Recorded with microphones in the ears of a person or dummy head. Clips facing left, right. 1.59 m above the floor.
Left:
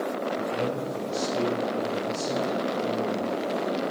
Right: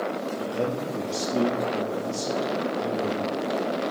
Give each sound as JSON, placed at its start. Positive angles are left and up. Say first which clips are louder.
{"t": 0.4, "sound": "a man speaking", "louder": "right 1 dB", "side_deg": -80, "distance_m": 3.0}